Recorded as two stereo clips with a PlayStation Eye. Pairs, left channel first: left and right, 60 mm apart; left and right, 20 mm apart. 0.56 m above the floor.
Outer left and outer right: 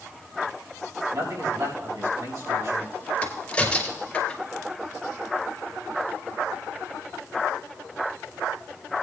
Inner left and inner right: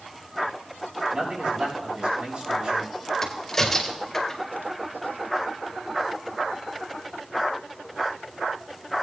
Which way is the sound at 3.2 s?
20° left (ahead or behind).